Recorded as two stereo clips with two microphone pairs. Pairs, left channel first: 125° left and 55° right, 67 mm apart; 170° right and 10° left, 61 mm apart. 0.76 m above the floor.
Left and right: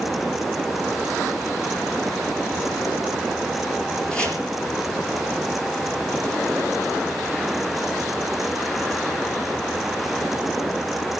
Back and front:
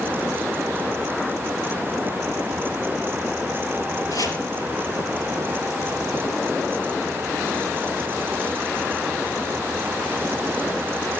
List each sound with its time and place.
4.1 s chopping: 160° right, 4 m